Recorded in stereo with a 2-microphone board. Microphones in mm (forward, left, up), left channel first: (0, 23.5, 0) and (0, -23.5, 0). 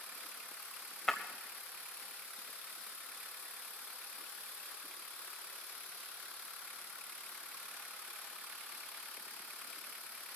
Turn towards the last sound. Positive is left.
turn(degrees=5)  # may be behind; listen again after turning